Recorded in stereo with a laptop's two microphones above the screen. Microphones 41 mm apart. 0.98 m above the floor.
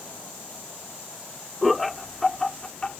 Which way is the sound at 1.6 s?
5° right (ahead or behind).